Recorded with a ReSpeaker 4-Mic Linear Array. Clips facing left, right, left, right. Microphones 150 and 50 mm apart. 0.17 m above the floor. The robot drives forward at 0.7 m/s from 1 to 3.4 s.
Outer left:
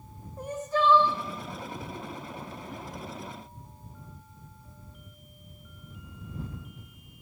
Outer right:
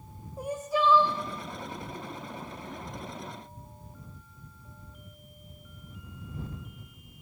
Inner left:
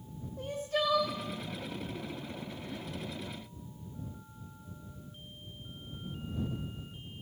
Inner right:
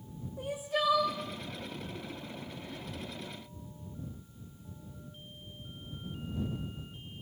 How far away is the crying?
About 1.7 m.